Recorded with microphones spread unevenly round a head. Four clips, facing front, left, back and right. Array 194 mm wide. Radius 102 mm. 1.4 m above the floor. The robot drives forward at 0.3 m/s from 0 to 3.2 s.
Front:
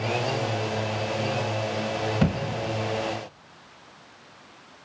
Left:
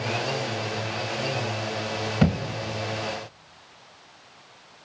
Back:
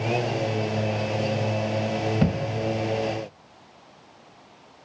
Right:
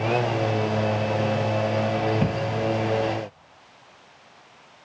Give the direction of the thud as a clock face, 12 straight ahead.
9 o'clock.